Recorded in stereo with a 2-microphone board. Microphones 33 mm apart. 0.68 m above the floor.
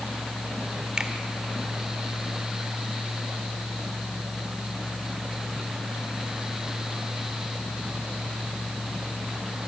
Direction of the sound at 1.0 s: 25° right (ahead or behind).